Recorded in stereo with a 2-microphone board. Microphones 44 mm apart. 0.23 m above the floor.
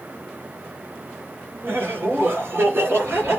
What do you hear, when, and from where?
1.6 s laughter: 65° right (ahead or behind), 3 m